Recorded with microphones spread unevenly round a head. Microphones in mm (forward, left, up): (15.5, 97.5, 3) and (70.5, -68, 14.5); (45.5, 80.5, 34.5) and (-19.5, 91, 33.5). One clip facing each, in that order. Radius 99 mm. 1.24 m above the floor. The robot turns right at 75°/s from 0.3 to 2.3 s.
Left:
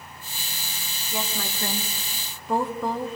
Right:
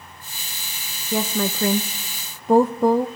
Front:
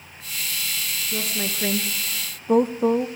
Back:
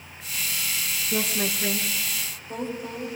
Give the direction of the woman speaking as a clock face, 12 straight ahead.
4 o'clock.